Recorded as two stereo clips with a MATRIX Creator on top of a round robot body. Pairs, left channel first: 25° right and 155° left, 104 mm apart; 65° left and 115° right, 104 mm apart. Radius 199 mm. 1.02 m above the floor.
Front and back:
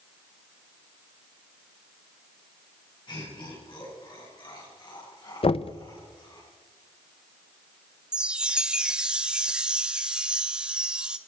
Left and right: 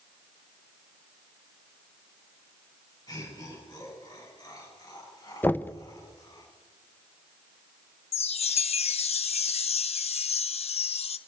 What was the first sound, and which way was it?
Laughter, 20° left.